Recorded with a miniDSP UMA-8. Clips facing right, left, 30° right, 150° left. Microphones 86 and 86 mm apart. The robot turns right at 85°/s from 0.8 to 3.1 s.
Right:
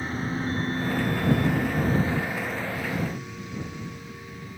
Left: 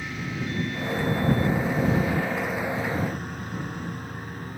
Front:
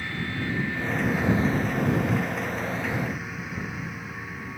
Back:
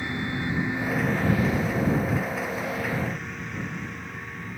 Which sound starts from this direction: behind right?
A lawn mower, at 0.0 s.